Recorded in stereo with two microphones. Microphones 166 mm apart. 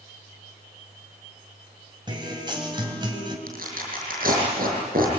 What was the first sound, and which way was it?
A guitar, 30° right (ahead or behind).